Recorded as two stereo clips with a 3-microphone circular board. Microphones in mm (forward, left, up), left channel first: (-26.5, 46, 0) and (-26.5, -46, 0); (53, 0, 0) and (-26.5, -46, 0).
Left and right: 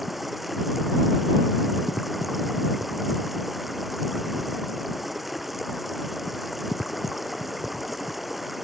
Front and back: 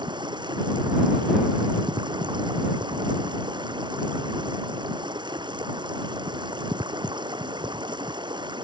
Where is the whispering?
I don't hear whispering.